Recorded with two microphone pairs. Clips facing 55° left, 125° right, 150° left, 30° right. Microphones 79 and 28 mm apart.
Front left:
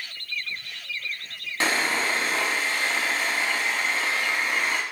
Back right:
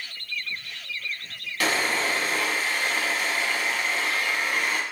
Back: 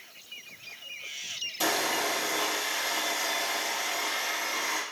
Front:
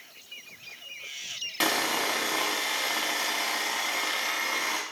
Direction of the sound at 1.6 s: 10° right.